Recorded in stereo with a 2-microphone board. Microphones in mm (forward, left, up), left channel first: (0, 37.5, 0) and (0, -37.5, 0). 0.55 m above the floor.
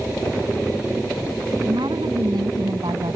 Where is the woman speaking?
80° right; by 3.2 s 75° right (ahead or behind).